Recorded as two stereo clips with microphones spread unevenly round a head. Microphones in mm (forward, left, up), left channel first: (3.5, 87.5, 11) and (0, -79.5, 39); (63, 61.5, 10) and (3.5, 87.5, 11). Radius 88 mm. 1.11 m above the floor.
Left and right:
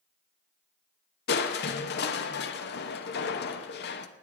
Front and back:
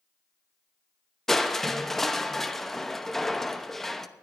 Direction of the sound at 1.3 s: 60° left.